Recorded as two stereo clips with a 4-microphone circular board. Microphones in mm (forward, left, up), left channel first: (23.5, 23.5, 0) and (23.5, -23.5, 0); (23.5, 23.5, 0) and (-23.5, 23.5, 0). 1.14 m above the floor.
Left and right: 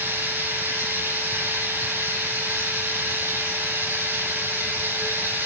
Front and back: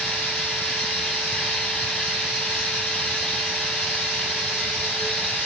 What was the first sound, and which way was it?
Running water, 75° right.